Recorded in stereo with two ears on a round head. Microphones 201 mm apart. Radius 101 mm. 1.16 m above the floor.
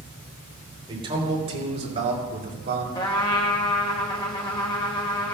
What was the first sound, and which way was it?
A man speaking, 20° right (ahead or behind).